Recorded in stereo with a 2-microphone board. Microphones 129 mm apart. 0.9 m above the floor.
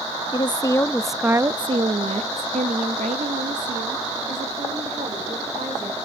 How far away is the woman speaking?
About 0.8 m.